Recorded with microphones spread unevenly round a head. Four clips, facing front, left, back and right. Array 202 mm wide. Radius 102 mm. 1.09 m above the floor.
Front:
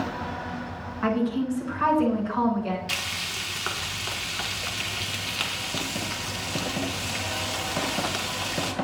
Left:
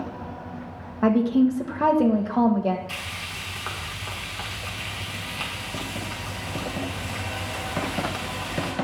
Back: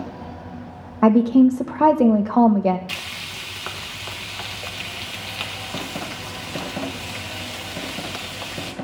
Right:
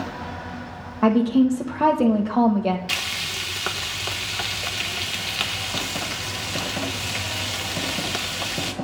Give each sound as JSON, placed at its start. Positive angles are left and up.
{"t": 1.0, "sound": "a woman speaking", "azimuth_deg": -175, "distance_m": 1.1}
{"t": 2.9, "sound": "frying", "azimuth_deg": -90, "distance_m": 1.7}